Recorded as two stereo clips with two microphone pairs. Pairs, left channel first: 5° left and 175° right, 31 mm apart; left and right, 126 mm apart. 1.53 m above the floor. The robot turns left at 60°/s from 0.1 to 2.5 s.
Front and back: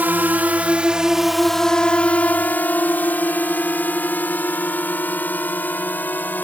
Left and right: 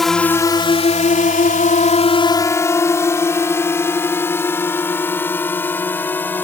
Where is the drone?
175° left; by 6.5 s 15° left.